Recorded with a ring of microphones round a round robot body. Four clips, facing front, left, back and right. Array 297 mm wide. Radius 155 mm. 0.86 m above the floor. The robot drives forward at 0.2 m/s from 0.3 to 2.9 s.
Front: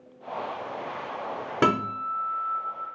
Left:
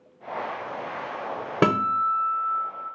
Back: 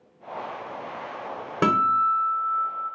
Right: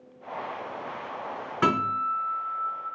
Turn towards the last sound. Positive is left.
turn(degrees=105)